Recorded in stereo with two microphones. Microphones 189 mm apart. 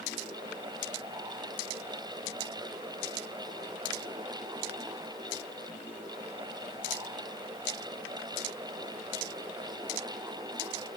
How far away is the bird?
No bird in this recording.